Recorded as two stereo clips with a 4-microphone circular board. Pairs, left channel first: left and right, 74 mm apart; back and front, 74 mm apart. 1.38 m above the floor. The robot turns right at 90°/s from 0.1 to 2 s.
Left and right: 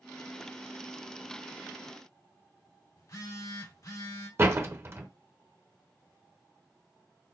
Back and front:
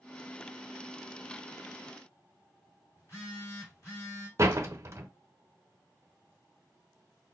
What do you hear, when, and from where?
3.0 s a phone buzzing: 130° left, 2.5 m
4.4 s a door slam: 40° right, 0.7 m